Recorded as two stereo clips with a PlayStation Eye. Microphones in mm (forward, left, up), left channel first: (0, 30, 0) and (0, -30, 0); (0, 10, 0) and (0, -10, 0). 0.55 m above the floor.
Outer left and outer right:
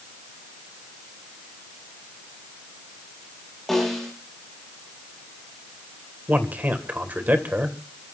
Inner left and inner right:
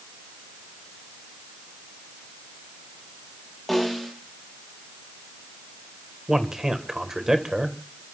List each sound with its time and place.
3.7 s a snare drum: centre (ahead or behind), 9.5 m
6.3 s a man speaking: 30° right (ahead or behind), 2.5 m